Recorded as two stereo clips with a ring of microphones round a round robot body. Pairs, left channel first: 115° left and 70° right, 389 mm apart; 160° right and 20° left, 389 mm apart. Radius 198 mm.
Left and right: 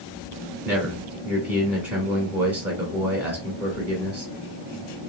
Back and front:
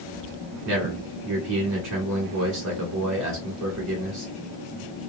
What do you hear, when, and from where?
0.7 s a man speaking: 10° left, 1.6 m